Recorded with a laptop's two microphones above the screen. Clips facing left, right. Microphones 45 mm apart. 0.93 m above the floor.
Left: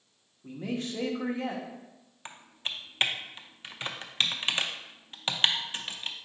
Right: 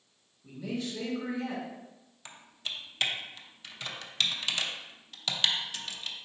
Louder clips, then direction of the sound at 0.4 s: Left 2 dB; 45° left (ahead or behind).